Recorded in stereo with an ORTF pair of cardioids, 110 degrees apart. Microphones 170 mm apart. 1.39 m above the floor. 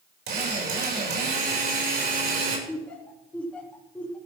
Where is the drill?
65° right, 6.5 m.